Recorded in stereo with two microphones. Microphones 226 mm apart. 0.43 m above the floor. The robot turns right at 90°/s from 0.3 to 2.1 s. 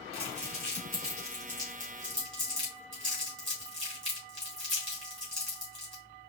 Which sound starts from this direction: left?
Crumpling, at 0.1 s.